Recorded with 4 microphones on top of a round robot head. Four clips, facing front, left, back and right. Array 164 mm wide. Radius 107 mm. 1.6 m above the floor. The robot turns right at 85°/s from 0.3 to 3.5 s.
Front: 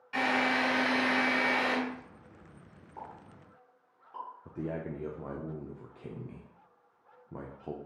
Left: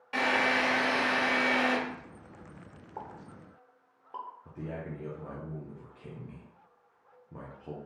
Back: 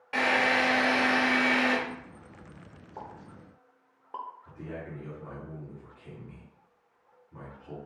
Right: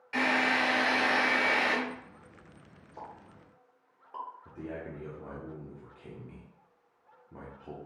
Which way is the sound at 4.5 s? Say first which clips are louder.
Even, front 4 dB; 10° left.